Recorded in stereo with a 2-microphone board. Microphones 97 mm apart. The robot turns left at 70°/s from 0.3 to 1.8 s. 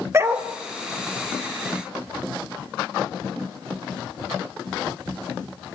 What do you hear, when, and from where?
0.1 s a dog barking: 30° right (ahead or behind), 1.4 m; by 0.5 s 40° right (ahead or behind), 1.4 m